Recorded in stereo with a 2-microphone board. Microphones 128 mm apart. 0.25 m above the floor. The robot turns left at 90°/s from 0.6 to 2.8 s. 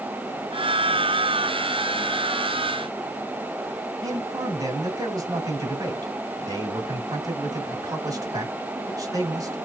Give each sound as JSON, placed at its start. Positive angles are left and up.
{"t": 4.0, "sound": "a man speaking", "side_deg": -30, "distance_m": 1.7}